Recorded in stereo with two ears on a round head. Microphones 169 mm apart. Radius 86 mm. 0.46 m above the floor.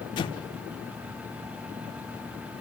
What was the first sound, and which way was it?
An explosion, 25° left (ahead or behind).